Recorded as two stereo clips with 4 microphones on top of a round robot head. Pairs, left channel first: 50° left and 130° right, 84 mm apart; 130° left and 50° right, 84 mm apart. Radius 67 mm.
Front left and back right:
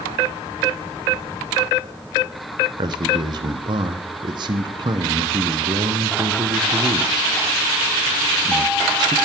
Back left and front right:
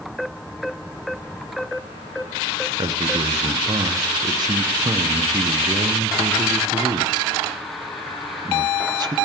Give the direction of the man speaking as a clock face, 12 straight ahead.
3 o'clock.